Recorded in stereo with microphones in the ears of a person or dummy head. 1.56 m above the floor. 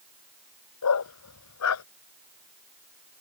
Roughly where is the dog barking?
Left.